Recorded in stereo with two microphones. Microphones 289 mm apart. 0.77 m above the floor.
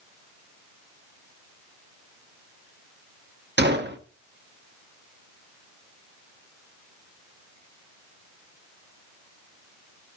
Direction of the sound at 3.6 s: 35° right (ahead or behind).